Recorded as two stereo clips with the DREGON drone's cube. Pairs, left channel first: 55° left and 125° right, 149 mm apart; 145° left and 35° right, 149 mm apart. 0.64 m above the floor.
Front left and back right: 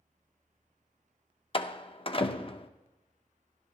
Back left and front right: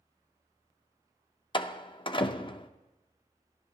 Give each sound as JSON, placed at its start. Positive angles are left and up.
{"t": 1.5, "sound": "a door slam", "azimuth_deg": 100, "distance_m": 0.5}